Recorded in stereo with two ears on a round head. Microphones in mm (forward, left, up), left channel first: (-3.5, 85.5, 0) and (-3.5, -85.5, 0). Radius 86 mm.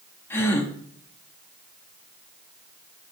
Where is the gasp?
10° left (ahead or behind), 0.9 m.